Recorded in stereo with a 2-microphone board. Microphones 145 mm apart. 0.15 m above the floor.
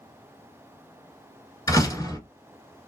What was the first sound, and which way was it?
A door slam, 25° left (ahead or behind).